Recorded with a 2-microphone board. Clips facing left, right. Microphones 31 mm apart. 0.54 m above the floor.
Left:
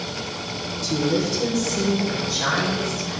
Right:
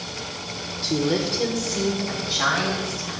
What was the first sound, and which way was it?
A woman speaking, 40° right (ahead or behind).